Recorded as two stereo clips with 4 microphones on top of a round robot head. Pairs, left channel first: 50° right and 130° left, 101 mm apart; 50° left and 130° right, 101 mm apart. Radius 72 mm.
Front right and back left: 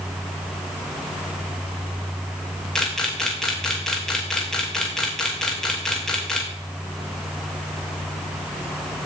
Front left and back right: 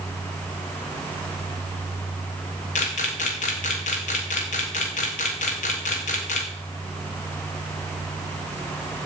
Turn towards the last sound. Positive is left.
turn(degrees=35)